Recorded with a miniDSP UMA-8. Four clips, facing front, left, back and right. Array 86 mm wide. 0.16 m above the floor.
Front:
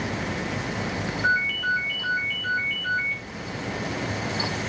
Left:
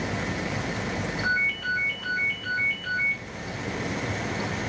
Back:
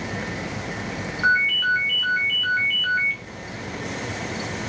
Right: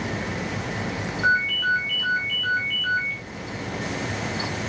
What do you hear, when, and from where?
1.2 s a ringtone: 155° right, 5 m